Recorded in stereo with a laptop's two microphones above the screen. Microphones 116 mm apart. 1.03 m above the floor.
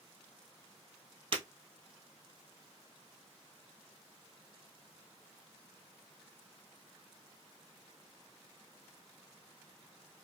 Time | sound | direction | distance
1.3 | breaking glass | 45° right (ahead or behind) | 1.6 m